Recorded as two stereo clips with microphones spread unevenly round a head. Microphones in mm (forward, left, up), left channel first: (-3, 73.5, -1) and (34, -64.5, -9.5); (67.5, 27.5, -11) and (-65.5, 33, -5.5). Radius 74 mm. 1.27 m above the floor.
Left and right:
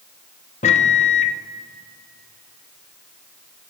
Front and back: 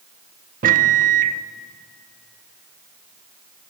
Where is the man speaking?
No man speaking in this recording.